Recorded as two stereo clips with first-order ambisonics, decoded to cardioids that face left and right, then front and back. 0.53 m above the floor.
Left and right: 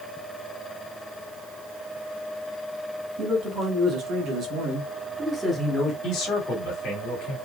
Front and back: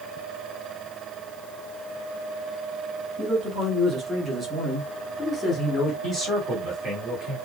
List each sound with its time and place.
3.2 s a man speaking: 125° right, 1.8 m; by 5.9 s 20° left, 1.0 m
6.0 s a man speaking: 110° left, 1.9 m